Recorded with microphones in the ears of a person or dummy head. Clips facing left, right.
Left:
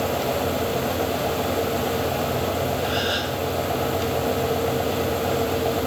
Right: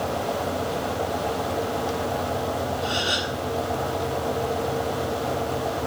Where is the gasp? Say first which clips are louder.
Left 3 dB; 35° right (ahead or behind), 6.5 m.